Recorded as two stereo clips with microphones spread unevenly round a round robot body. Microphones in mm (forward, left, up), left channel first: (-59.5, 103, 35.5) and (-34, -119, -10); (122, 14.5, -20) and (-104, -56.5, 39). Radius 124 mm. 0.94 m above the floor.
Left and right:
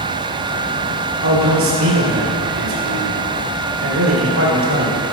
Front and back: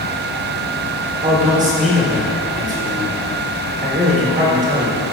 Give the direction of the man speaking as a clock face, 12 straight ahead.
3 o'clock.